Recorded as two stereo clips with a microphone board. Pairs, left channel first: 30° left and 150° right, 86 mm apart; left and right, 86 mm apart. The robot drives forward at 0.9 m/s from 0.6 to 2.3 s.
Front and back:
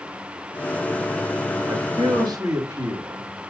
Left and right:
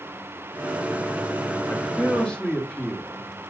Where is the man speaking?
160° left, 0.8 m; by 3.2 s 170° left, 1.4 m.